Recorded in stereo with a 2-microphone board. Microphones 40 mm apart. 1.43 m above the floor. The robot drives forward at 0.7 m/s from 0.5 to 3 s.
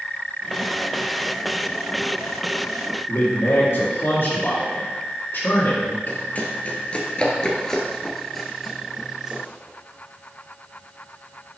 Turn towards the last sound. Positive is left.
turn(degrees=-15)  # may be behind; listen again after turning